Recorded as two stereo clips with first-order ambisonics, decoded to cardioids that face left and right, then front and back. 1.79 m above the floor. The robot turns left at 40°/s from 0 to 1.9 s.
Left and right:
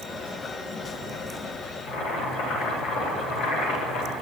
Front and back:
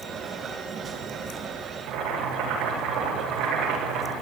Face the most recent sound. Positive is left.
turn(degrees=135)